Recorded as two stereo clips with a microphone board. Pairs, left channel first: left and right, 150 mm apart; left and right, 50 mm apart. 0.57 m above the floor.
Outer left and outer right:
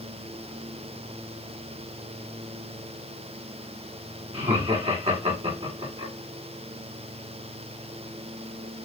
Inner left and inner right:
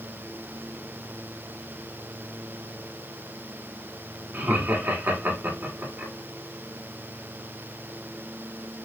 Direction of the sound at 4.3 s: 45° right (ahead or behind).